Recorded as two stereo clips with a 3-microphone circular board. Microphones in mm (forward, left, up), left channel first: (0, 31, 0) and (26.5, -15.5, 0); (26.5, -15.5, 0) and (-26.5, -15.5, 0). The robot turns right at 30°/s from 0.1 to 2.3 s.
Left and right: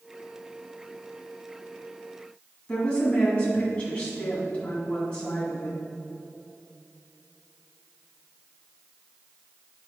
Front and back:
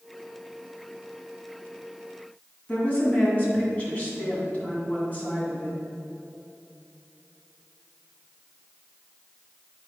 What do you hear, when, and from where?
2.7 s a woman speaking: 55° left, 2.5 m